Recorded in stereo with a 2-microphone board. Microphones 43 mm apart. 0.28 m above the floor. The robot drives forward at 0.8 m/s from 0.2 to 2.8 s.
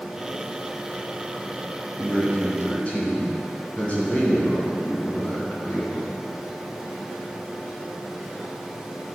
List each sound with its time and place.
2.0 s a man speaking: 40° left (ahead or behind), 1.6 m; by 6.2 s 35° left (ahead or behind), 2 m